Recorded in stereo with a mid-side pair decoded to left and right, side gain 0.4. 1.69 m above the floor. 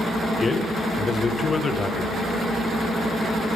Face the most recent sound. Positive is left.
turn(degrees=40)